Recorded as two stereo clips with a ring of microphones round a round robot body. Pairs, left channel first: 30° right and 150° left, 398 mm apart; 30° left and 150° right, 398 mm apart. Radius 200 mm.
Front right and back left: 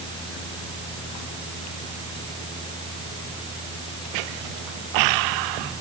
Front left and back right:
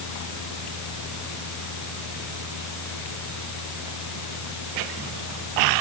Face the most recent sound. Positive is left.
No sound to turn to.